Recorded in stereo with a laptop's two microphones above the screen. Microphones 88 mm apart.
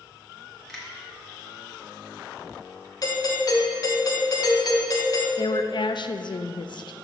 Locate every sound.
0.7 s a finger snap: 5° left (ahead or behind), 2.5 m
3.0 s a doorbell: 45° left (ahead or behind), 1.1 m
5.4 s a woman speaking: 60° left (ahead or behind), 0.5 m